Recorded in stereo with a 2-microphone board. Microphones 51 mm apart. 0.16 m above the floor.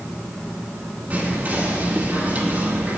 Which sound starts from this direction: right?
Whispering, at 1.1 s.